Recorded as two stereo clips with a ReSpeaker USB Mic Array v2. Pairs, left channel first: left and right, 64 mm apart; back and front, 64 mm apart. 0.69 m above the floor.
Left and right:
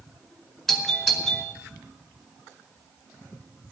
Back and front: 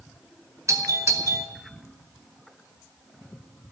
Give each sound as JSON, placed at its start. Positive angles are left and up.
{"t": 0.7, "sound": "a doorbell", "azimuth_deg": 5, "distance_m": 2.5}